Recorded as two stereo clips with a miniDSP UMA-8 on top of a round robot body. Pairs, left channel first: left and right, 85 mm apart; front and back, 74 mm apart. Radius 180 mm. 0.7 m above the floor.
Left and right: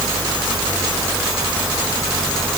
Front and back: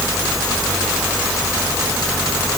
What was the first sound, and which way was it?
Only background noise.